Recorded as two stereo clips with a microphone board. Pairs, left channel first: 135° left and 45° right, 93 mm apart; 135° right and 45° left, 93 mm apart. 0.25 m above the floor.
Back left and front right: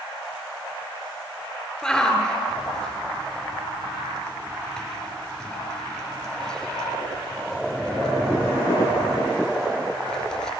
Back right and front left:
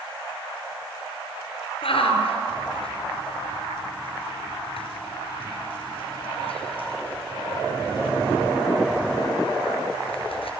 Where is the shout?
140° right, 4 m.